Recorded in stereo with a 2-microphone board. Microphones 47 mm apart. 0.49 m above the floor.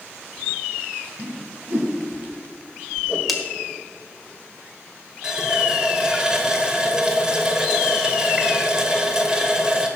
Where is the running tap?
15° right (ahead or behind), 1.2 m.